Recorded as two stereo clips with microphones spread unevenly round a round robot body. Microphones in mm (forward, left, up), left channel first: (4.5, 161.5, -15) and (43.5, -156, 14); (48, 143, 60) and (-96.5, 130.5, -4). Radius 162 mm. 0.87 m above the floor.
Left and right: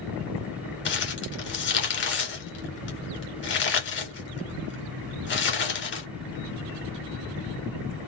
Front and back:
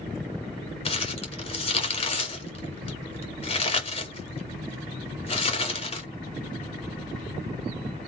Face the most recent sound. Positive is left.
turn(degrees=40)